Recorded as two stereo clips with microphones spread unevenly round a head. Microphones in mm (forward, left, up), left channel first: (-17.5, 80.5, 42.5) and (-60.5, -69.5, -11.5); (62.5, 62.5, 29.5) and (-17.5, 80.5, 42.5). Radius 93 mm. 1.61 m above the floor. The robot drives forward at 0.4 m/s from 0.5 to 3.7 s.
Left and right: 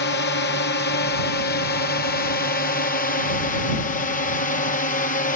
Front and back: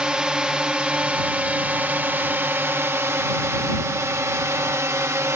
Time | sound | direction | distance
0.0 | a drone | 85° left | ?